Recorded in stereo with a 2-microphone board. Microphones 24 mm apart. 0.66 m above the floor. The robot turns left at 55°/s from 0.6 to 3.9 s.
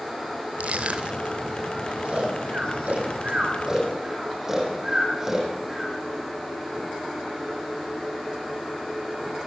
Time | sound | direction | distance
0.6 | crushing | 70° right (ahead or behind) | 2.5 m
2.0 | snoring | 60° right (ahead or behind) | 8 m